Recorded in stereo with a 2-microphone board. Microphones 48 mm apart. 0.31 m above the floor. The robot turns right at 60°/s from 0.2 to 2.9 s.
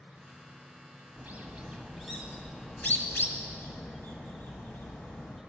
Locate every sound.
0.0 s an insect: 155° right, 1.7 m; by 5.5 s 5° left, 1.7 m
1.2 s a bird: 40° right (ahead or behind), 1.4 m; by 5.4 s 45° left (ahead or behind), 1.4 m